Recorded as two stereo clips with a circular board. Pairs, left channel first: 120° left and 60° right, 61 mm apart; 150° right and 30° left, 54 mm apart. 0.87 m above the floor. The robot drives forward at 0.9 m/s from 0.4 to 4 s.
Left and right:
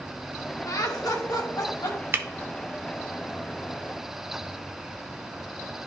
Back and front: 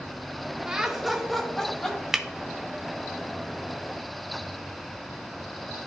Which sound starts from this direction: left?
Laughter, at 0.7 s.